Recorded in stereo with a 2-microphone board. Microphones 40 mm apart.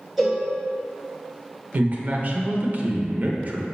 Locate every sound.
0.2 s a cowbell: 10° right (ahead or behind), 2 m
1.7 s a man speaking: 45° right (ahead or behind), 1.0 m